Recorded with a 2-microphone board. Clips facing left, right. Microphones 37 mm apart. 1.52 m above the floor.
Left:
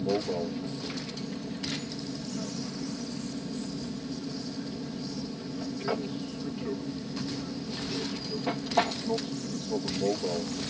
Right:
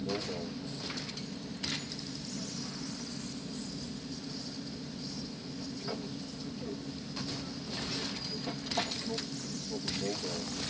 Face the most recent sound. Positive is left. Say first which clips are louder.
# left 7 dB
turn(degrees=35)  # may be behind; listen again after turning